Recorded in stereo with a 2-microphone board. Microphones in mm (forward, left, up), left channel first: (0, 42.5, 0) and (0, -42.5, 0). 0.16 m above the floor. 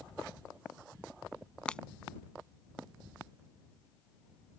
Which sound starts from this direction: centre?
Breaking glass, at 1.7 s.